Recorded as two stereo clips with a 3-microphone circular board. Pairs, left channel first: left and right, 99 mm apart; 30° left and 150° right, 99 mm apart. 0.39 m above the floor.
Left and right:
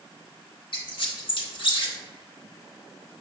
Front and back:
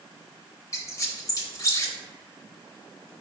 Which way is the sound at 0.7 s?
80° left.